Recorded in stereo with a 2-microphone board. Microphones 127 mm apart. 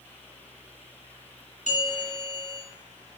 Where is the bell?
75° left (ahead or behind), 3.5 m.